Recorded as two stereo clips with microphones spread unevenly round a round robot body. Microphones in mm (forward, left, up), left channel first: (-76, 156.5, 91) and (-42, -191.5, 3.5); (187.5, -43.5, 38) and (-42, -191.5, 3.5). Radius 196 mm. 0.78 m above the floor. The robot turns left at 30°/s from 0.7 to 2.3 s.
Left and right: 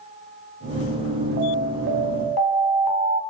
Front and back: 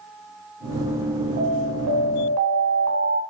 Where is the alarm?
120° right, 4.5 m; by 3.2 s 150° right, 4.5 m.